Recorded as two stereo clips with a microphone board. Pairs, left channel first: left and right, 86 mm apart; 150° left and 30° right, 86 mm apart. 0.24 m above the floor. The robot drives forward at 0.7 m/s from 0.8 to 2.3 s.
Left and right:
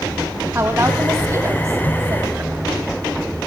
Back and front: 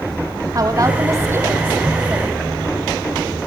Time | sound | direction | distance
0.6 | a woman speaking | 50° right | 1.7 m